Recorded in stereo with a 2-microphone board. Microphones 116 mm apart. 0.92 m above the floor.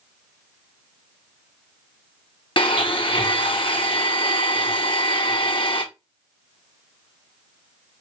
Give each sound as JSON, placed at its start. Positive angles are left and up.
{"t": 2.6, "sound": "a blender", "side_deg": 50, "distance_m": 1.0}